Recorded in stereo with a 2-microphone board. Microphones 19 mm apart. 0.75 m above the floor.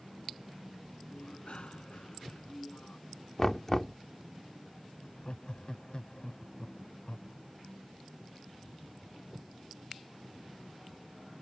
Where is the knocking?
25° left (ahead or behind).